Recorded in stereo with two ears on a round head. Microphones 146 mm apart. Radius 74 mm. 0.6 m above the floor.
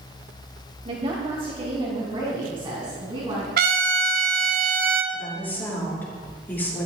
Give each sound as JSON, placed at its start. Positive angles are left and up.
{"t": 0.8, "sound": "a woman speaking", "side_deg": -35, "distance_m": 2.0}
{"t": 3.6, "sound": "a trumpet", "side_deg": -65, "distance_m": 1.8}
{"t": 5.1, "sound": "a woman speaking", "side_deg": 10, "distance_m": 9.0}